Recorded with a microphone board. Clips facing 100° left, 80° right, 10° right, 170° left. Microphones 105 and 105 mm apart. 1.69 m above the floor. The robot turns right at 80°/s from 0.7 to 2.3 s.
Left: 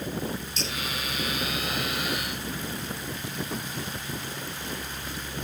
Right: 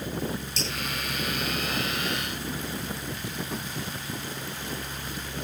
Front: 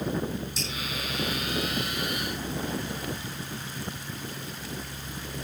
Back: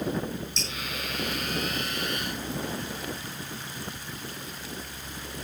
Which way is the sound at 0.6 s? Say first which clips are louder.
Right 1 dB, front 1 dB; 90° right.